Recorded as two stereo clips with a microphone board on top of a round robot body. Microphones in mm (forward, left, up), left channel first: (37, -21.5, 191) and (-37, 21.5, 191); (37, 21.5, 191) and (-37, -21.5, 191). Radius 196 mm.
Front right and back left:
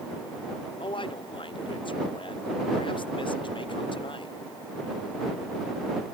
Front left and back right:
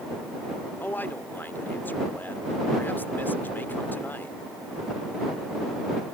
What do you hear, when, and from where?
0.8 s a man speaking: 40° right